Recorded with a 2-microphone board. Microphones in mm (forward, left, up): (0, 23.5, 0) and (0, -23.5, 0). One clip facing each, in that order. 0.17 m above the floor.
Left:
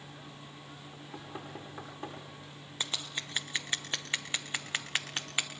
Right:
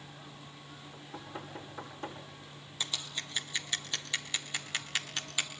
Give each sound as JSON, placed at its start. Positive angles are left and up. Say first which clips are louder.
{"t": 0.9, "sound": "knocking", "louder": "even", "side_deg": 10, "distance_m": 9.5}
{"t": 2.8, "sound": "scissors", "louder": "left 1 dB", "side_deg": 30, "distance_m": 2.5}